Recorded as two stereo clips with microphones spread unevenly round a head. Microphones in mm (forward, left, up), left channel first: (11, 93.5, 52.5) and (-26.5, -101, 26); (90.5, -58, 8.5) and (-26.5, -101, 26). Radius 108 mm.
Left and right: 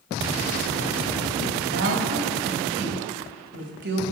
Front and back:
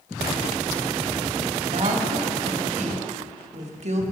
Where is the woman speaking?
135° right, 1.9 m.